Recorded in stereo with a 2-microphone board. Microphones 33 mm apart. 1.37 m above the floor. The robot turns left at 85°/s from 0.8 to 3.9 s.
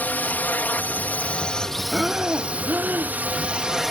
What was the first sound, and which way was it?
A drone, 95° left.